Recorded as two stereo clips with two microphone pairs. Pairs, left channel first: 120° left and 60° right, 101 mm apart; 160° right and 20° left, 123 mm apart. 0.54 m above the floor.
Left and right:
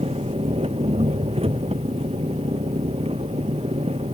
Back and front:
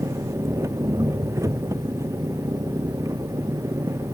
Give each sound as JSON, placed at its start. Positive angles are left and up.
{"t": 0.0, "sound": "an engine running", "azimuth_deg": -45}